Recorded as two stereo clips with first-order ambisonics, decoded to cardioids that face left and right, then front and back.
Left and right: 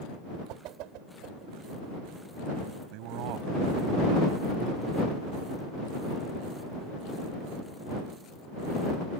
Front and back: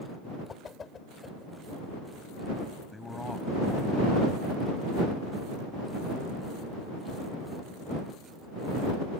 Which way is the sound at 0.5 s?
70° right.